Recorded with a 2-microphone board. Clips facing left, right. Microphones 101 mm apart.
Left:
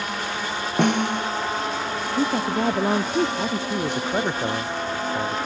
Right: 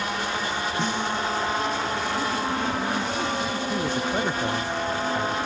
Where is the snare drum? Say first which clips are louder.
Left 9 dB; 65° left (ahead or behind).